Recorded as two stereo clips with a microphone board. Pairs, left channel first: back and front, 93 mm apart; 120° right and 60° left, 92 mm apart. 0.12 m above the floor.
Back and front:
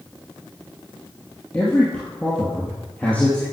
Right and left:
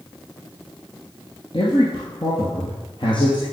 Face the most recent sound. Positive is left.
turn(degrees=-105)